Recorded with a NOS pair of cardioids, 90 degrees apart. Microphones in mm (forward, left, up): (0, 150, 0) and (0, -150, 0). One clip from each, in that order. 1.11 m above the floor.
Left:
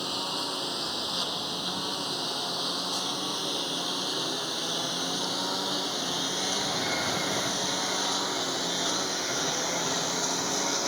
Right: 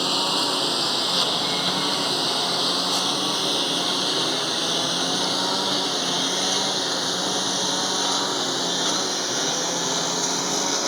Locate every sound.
0.0 s a lawn mower: 60° right; by 10.9 s 35° right